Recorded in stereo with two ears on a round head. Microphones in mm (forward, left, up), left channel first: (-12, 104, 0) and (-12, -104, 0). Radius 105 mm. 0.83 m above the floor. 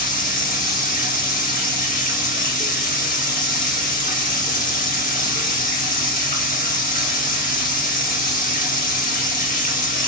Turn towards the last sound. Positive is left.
turn(degrees=35)  # may be behind; listen again after turning